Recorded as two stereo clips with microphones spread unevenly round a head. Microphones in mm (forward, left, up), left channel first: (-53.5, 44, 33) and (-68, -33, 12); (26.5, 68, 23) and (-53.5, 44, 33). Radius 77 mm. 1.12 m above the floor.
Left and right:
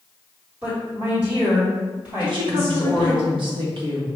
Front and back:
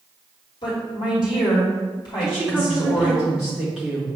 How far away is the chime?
I don't hear a chime.